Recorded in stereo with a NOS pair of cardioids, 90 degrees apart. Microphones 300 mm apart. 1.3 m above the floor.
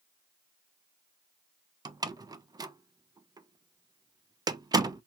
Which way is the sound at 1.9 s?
15° right.